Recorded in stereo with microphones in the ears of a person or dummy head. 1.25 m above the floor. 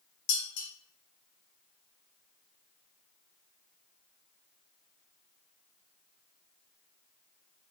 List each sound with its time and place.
0.3 s dishes clattering: 65° left (ahead or behind), 1.6 m